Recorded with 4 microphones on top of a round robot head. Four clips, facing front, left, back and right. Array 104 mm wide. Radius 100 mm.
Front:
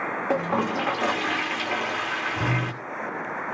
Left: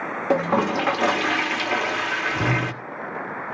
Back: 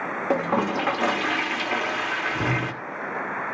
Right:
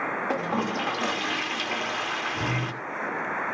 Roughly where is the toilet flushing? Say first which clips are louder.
Left 10 dB, back 2 dB; left.